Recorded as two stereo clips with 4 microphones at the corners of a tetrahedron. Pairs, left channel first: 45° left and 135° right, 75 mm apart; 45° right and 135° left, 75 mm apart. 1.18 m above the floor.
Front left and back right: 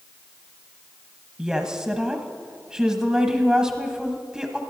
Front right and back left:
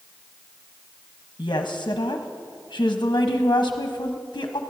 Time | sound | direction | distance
1.4 | a woman speaking | 55° right | 1.0 m